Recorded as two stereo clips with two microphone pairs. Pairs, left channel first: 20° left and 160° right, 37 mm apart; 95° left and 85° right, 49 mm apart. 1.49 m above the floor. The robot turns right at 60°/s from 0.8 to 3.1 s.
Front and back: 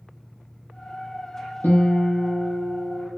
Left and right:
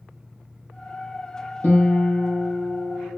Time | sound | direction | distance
1.6 | a guitar | 50° left | 1.3 m